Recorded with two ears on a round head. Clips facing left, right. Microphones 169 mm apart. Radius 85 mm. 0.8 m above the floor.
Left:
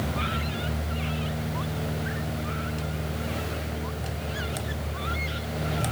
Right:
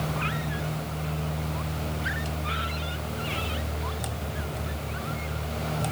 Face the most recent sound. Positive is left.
No sound to turn to.